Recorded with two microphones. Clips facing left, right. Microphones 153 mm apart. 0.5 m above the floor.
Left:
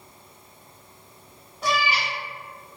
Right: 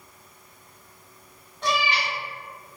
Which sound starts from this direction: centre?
A cat meowing, at 1.6 s.